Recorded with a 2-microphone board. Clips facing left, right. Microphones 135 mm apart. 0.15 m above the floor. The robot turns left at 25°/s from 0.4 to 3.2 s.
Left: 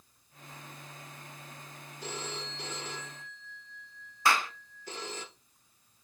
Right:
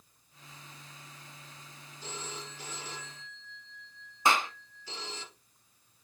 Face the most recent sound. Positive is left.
turn(degrees=-20)  # may be behind; listen again after turning